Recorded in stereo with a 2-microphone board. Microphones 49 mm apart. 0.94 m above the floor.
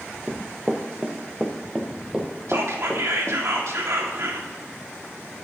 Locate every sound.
0.3 s running footsteps: 35° right (ahead or behind), 1.2 m; by 3.4 s 10° right (ahead or behind), 2.5 m
2.5 s whispering: 70° right (ahead or behind), 2.5 m